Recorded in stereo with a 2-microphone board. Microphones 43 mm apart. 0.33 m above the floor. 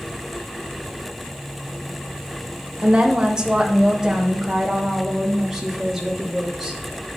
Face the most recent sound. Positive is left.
turn(degrees=0)  # may be behind; listen again after turning